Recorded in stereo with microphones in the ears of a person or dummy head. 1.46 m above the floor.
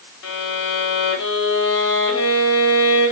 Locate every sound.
0.2 s a violin: 70° left (ahead or behind), 3.5 m